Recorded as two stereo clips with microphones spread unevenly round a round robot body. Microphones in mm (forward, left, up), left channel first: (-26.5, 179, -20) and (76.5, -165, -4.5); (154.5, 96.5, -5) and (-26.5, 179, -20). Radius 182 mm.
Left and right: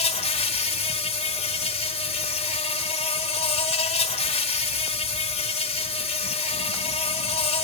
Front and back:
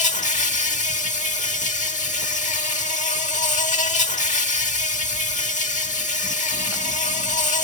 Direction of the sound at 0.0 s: 30° left.